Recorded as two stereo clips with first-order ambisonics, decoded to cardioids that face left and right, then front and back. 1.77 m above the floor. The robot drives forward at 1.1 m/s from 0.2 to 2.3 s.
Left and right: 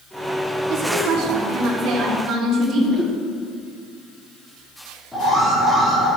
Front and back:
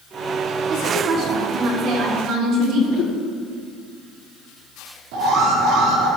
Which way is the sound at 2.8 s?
20° left.